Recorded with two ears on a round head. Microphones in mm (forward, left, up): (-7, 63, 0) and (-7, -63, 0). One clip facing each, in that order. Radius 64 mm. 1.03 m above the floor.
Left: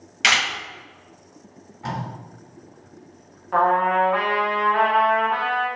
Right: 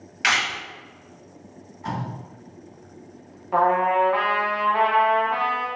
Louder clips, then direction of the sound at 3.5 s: Even; 10° right (ahead or behind).